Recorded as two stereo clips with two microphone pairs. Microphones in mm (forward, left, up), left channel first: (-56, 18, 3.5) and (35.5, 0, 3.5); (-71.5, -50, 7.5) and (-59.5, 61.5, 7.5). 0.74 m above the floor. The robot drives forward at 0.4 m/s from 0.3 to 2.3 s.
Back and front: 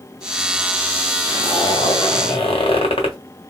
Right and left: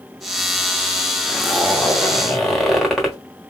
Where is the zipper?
175° left, 0.7 m; by 3.2 s straight behind, 1.1 m.